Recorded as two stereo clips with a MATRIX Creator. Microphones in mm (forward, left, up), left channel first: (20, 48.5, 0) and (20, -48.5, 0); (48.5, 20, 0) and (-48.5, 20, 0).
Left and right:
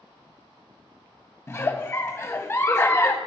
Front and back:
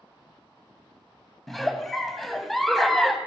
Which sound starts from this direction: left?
A giggle, at 1.5 s.